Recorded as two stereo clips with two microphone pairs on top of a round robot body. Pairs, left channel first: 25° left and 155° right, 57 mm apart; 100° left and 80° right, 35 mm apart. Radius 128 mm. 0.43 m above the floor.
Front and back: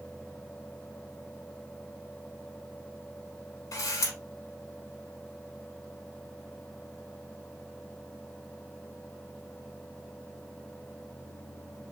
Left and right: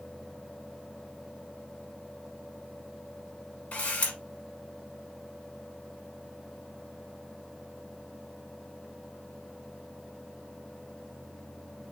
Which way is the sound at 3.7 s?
45° left.